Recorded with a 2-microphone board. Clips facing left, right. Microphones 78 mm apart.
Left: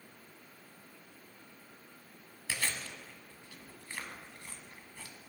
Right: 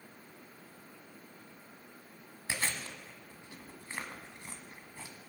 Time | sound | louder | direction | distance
2.5 | chewing | right 1 dB | 20° right (ahead or behind) | 1.2 m